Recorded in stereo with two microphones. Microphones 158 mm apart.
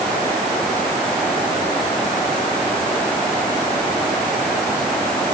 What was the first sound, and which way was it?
Only background noise.